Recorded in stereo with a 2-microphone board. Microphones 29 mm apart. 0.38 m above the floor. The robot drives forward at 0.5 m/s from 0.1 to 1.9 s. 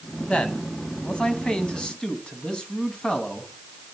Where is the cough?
I don't hear a cough.